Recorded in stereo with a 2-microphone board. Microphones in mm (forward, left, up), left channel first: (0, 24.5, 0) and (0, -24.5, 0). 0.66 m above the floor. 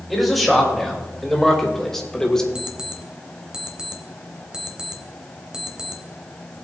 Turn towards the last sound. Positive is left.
turn(degrees=-15)  # may be behind; listen again after turning